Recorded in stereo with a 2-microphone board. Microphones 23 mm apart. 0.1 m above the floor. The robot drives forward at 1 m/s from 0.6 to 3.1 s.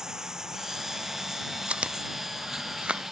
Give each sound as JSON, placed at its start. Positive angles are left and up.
{"t": 0.0, "sound": "running water", "side_deg": -20}
{"t": 1.7, "sound": "chewing", "side_deg": -45}